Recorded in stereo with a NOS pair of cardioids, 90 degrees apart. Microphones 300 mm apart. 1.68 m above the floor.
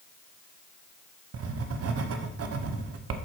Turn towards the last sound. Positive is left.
turn(degrees=-50)